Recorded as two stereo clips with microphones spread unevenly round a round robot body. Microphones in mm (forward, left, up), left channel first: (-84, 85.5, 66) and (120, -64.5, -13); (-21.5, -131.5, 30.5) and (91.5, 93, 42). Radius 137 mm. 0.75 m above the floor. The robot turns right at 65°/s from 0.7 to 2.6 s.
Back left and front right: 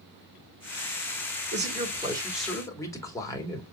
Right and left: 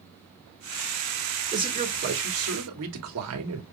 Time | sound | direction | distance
1.5 | a man speaking | 15° right | 2 m